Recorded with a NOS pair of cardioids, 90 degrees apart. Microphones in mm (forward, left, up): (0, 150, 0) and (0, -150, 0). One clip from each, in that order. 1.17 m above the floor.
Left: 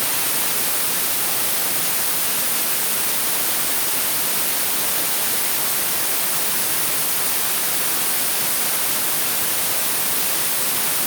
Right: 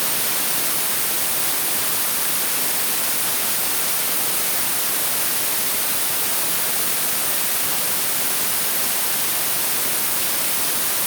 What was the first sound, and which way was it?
Only background noise.